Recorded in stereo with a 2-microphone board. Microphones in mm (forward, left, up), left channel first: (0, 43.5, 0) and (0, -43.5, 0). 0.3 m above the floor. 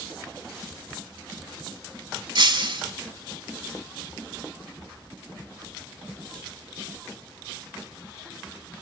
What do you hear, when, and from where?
2.4 s breaking glass: 65° right (ahead or behind), 0.9 m